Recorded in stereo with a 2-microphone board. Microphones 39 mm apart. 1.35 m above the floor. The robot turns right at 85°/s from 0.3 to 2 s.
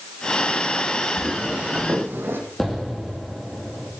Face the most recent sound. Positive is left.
turn(degrees=5)  # may be behind; listen again after turning